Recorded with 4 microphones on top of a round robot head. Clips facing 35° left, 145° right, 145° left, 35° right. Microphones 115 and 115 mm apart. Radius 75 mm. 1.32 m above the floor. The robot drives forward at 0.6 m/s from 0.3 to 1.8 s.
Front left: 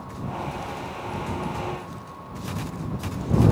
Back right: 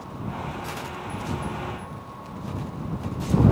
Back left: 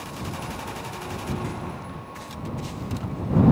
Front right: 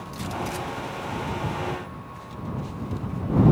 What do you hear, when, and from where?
Only background noise.